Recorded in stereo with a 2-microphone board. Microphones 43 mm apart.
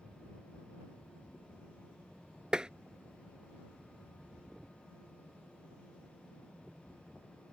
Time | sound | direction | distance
2.5 | tapping | 20° right (ahead or behind) | ?